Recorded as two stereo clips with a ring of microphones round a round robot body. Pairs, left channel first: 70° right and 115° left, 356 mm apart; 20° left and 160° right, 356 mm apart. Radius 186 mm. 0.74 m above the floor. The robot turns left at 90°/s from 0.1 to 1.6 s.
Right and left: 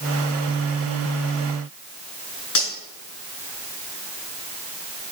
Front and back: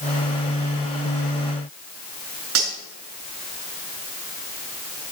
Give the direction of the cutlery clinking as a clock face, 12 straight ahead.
4 o'clock.